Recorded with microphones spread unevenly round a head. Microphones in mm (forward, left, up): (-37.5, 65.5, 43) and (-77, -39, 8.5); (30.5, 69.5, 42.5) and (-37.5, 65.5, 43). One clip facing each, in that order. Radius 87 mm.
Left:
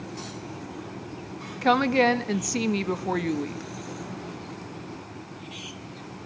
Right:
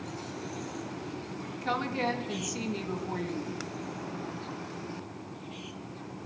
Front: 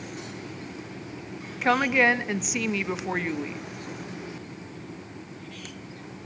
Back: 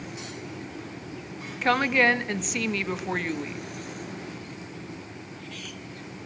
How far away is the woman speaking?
About 1.5 m.